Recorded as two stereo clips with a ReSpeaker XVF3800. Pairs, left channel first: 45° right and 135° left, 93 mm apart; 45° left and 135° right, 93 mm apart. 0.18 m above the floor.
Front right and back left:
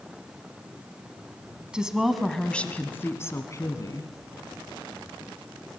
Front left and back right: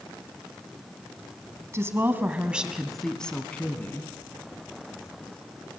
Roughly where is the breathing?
No breathing in this recording.